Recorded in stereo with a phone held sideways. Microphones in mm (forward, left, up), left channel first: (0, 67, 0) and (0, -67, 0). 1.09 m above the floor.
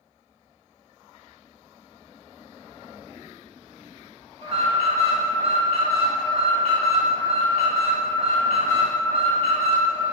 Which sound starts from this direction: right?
An alarm, at 4.4 s.